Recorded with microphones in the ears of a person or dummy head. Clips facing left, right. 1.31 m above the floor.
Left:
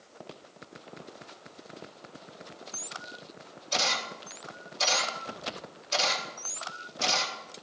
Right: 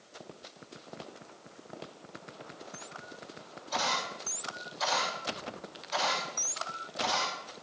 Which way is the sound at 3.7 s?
40° left (ahead or behind).